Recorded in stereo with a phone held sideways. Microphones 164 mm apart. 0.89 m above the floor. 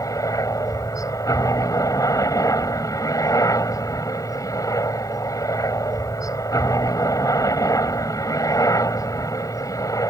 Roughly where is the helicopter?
Centre.